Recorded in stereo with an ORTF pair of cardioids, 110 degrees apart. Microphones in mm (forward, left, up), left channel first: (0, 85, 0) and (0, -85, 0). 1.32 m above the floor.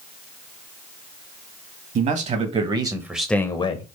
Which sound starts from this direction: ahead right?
A man speaking, at 1.9 s.